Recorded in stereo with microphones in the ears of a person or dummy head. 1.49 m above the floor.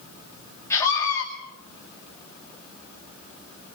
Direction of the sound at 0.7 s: 15° left (ahead or behind).